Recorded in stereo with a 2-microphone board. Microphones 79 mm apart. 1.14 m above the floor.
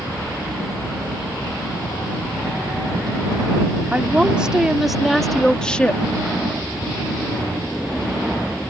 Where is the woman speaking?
15° right (ahead or behind); by 6.0 s 20° left (ahead or behind).